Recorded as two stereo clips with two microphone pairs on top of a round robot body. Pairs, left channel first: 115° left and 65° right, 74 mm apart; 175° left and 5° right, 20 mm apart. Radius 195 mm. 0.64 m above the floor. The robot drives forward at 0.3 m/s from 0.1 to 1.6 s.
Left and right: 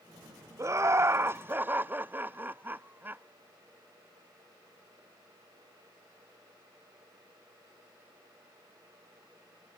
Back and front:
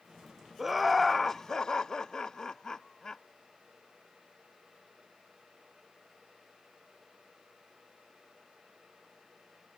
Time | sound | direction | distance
0.6 | laughter | 40° right | 0.6 m